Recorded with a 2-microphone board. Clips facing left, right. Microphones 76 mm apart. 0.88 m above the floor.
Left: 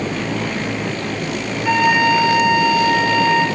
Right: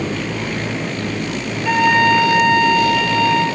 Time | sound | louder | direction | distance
1.6 | a flute | right 1 dB | 15° left (ahead or behind) | 6.5 m